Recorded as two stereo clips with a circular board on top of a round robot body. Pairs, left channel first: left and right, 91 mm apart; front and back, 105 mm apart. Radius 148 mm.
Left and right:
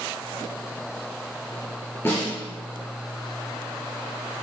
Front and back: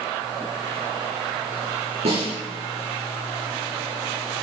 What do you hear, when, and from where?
2.0 s a snare drum: 155° left, 4.5 m